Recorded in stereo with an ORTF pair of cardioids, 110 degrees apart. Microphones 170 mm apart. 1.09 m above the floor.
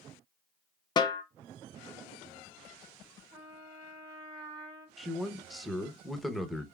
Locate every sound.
1.0 s a snare drum: 25° left, 0.6 m
3.3 s a trumpet: 25° right, 1.3 m
5.0 s a man speaking: straight ahead, 0.7 m